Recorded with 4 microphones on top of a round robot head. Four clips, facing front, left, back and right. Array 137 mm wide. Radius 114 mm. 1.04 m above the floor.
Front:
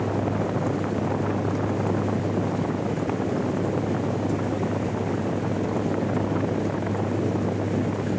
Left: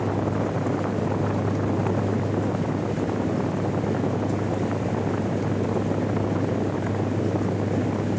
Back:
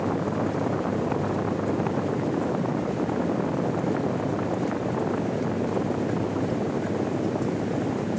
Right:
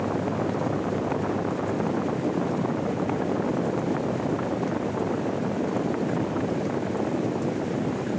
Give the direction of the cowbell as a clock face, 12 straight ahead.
I don't hear a cowbell.